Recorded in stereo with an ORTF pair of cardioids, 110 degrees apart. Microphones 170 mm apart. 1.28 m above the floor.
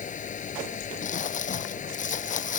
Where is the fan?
50° left.